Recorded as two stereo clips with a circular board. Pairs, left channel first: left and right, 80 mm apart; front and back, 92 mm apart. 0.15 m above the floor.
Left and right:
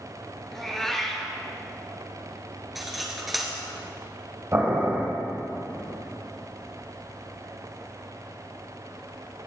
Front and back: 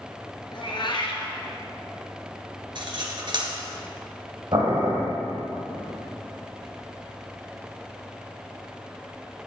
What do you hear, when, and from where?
0.5 s a cat meowing: 5° left, 1.2 m
2.8 s cutlery clinking: 175° right, 1.6 m
4.5 s boiling: 145° right, 3 m